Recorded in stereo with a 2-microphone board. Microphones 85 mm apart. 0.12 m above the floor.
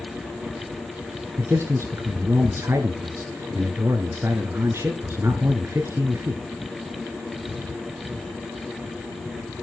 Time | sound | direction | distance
1.4 | a man speaking | 30° right (ahead or behind) | 1.6 m